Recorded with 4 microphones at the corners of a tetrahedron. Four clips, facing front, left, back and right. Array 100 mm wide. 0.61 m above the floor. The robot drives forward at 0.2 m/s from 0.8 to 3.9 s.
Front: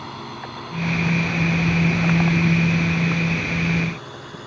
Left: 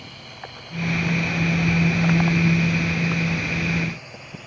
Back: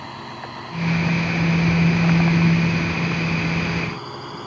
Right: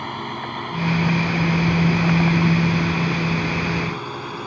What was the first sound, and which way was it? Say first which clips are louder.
A drone: right 12 dB, even; 85° right.